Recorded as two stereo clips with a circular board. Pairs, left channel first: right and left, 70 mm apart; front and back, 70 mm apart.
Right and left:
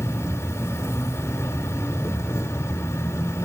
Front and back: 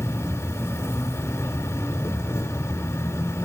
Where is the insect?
45° right, 1.4 m.